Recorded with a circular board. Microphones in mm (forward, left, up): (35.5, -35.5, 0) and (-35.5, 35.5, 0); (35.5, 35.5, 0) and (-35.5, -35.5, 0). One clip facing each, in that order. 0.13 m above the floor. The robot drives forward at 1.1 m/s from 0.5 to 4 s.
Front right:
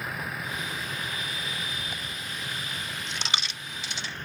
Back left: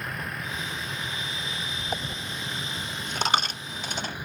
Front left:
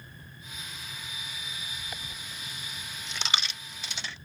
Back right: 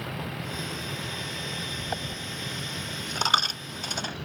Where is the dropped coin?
Straight behind.